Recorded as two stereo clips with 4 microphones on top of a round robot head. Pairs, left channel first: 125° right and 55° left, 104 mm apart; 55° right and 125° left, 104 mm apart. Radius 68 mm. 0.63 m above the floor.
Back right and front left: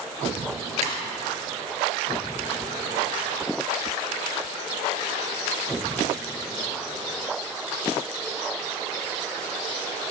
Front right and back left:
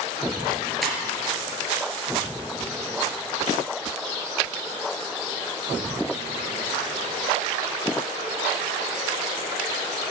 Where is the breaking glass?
35° left, 3.5 m.